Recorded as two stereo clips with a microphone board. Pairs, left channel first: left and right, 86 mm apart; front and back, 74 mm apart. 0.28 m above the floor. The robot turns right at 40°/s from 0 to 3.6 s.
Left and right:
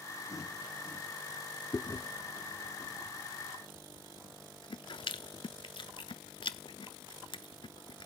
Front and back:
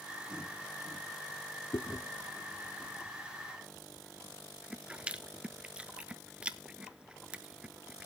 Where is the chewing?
30° left, 0.6 m; by 8.1 s 105° left, 0.6 m.